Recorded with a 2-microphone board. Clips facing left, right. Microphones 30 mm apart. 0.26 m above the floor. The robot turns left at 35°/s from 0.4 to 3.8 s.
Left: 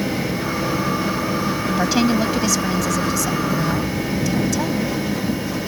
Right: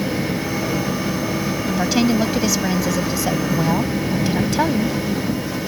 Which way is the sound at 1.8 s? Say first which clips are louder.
Right 1 dB; 5° left.